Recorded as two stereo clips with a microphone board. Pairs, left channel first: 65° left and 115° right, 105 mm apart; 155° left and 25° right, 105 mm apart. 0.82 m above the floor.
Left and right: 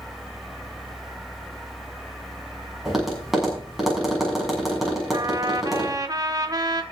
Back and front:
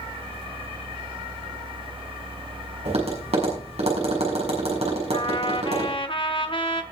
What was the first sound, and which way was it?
Tapping, 25° right.